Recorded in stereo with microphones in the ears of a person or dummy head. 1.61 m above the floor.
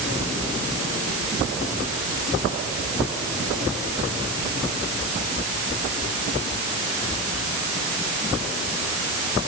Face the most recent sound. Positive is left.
No sound to turn to.